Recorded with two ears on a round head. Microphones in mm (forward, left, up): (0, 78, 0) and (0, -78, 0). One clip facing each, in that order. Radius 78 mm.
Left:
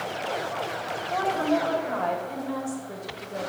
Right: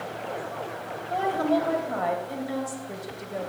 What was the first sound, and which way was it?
A woman speaking, 10° right (ahead or behind).